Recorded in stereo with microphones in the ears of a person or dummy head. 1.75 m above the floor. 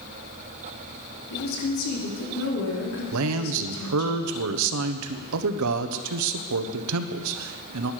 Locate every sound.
1.3 s a woman speaking: 80° left, 4 m
3.1 s a man speaking: 75° right (ahead or behind), 1.1 m